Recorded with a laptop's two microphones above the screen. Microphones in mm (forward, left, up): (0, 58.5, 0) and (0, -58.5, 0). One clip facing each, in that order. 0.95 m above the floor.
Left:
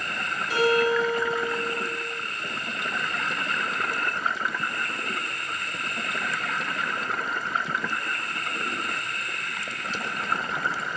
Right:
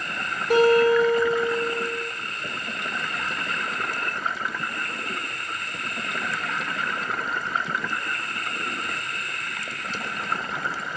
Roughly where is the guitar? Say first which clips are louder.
Right 6 dB; right.